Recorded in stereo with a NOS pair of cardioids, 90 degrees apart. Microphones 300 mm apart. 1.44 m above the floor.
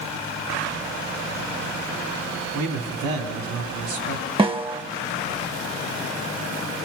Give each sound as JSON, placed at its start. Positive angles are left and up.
{"t": 2.5, "sound": "a man speaking", "azimuth_deg": -70, "distance_m": 3.5}
{"t": 4.4, "sound": "a snare drum", "azimuth_deg": -20, "distance_m": 0.9}